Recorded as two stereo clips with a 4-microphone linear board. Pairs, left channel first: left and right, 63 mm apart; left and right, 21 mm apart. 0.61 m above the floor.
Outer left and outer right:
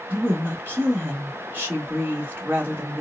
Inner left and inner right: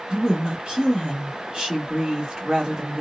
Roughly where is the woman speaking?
Right.